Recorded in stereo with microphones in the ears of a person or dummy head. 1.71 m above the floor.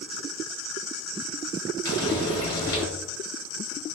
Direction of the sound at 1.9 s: 20° left (ahead or behind).